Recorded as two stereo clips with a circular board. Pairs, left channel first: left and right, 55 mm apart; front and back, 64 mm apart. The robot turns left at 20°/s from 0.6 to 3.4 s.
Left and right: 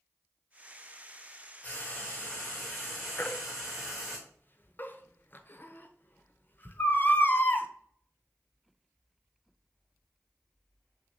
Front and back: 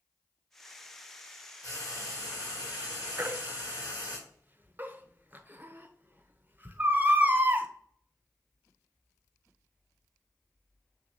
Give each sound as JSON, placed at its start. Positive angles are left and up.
{"t": 1.6, "sound": "frying", "azimuth_deg": 25, "distance_m": 1.6}
{"t": 3.2, "sound": "a baby crying", "azimuth_deg": 130, "distance_m": 0.5}